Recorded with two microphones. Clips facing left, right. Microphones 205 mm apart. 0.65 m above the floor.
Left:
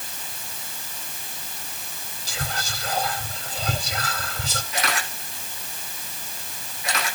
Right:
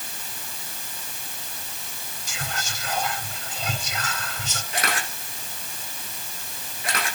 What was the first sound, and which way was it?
Whispering, 35° left (ahead or behind).